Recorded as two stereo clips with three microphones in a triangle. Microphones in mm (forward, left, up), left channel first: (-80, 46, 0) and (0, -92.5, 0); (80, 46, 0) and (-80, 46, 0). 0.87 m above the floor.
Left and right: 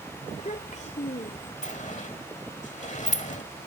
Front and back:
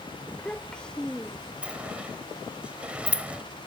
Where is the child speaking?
85° left.